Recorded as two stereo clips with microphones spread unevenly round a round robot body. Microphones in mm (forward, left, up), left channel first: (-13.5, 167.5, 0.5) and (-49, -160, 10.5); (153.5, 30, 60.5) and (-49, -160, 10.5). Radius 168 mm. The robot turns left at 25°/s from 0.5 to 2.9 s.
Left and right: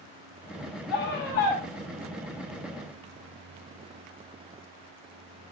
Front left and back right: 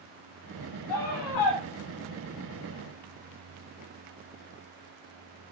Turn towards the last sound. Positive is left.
turn(degrees=-15)